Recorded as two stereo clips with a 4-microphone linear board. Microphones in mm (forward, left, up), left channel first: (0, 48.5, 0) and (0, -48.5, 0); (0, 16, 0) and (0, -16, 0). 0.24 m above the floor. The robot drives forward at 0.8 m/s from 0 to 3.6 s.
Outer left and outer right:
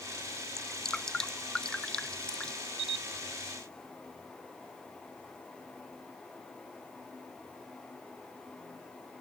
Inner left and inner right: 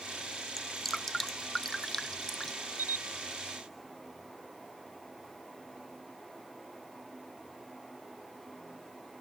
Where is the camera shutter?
80° right.